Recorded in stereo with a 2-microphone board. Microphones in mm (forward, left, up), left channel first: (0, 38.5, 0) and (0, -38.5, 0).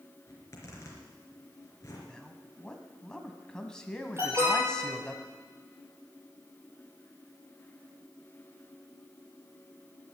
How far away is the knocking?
No knocking in this recording.